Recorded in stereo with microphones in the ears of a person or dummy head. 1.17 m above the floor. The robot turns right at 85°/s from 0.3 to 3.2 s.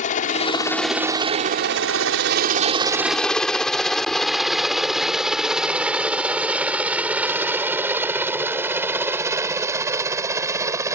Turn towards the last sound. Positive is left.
turn(degrees=-20)  # may be behind; listen again after turning